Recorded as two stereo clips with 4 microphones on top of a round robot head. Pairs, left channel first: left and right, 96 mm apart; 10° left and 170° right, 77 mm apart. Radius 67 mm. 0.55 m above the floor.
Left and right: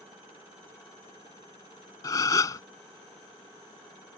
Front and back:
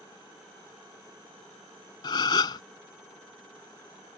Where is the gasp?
35° left.